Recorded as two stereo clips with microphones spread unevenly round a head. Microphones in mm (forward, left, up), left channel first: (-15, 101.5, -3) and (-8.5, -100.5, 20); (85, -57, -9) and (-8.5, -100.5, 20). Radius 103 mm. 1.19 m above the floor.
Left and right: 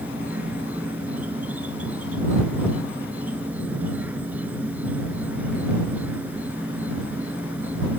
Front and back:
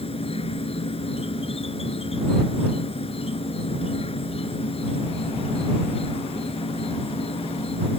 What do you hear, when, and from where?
0.0 s an insect: 5° right